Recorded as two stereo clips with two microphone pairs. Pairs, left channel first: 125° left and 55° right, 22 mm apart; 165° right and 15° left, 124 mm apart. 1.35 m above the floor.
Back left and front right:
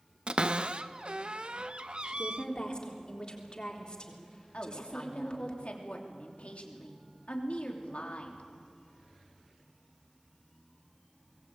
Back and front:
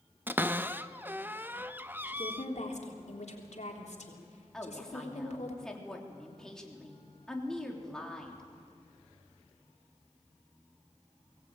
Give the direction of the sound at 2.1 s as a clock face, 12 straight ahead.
6 o'clock.